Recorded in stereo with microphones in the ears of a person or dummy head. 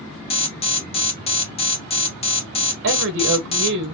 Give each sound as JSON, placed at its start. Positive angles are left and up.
{"t": 0.3, "sound": "an alarm", "side_deg": 30, "distance_m": 1.1}
{"t": 2.8, "sound": "a woman speaking", "side_deg": -65, "distance_m": 1.3}